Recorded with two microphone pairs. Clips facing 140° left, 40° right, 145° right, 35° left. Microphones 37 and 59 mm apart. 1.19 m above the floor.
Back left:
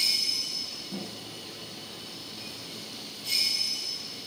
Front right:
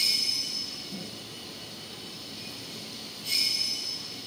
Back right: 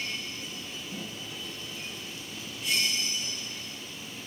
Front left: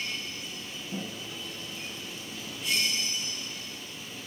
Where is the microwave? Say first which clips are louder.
Back left 1 dB, front left 5 dB; 90° left, 1.8 m.